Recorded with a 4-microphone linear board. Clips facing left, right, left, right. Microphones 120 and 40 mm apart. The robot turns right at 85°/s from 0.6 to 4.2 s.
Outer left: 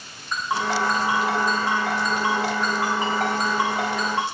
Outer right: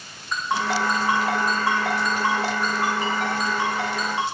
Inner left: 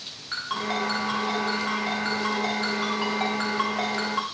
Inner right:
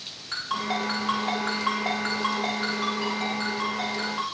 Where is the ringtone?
5° left (ahead or behind), 7.5 m; by 4.2 s 60° left (ahead or behind), 7.5 m.